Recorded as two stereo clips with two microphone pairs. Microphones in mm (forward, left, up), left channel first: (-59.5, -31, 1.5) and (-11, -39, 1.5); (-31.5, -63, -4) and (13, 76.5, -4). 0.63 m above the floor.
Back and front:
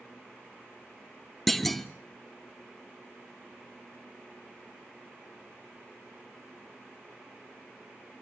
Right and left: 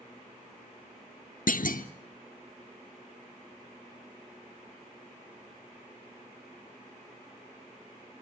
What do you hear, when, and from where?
1.5 s a clunk: 105° right, 1.0 m